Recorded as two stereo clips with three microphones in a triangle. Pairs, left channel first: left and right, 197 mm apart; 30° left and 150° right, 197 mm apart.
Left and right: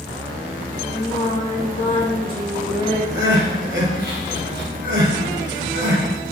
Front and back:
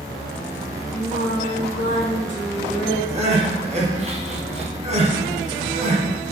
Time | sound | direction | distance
0.9 | singing | 30° left | 2.5 m
3.1 | crying | 100° right | 1.9 m